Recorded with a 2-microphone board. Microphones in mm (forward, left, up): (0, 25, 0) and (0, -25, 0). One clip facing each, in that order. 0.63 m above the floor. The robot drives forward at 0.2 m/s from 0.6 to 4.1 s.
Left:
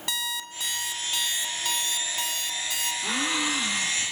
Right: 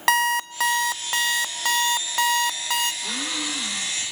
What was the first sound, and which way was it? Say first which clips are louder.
An alarm clock: right 13 dB; 85° right.